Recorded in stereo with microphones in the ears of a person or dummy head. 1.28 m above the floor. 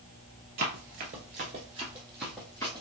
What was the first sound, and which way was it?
Running footsteps, 45° right (ahead or behind).